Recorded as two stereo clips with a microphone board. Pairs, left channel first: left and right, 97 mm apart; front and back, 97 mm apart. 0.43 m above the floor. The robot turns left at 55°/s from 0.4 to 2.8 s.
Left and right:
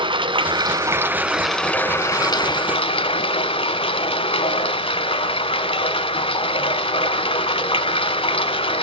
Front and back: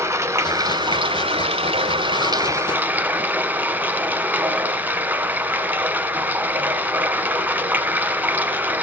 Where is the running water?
120° right, 1.0 m; by 8.8 s 105° left, 1.0 m.